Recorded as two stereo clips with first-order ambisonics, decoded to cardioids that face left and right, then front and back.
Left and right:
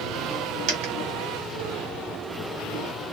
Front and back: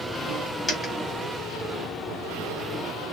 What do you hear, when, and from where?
0.7 s a dropped coin: 75° right, 2.5 m